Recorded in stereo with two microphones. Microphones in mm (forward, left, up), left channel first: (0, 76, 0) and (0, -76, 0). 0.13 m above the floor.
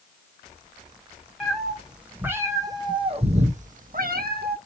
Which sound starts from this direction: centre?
A cat meowing, at 1.4 s.